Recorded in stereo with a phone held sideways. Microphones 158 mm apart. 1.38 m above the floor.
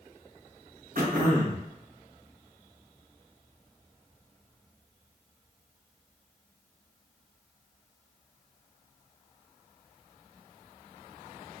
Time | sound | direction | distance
0.9 | throat clearing | 65° right (ahead or behind) | 0.9 m